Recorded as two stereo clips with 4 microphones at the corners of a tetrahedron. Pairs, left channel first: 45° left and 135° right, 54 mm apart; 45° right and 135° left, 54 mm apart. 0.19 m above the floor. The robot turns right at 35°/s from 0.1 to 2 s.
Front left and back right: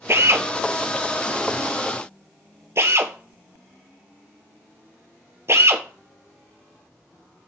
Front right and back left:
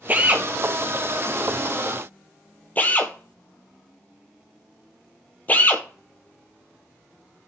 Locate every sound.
0.1 s a drill: 170° right, 1.8 m; by 7.5 s 100° right, 1.8 m